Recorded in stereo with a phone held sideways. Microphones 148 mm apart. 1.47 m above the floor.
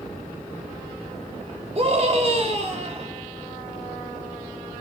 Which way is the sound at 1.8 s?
45° right (ahead or behind).